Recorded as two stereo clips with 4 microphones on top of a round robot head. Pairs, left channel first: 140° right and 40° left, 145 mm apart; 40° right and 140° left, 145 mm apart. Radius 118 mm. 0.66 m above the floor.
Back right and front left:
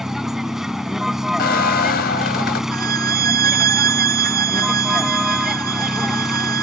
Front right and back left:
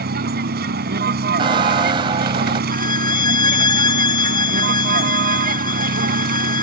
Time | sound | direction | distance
0.0 | a vehicle | 130° left | ?
1.4 | a squeak | 160° right | ?
2.7 | a violin | 20° left | ?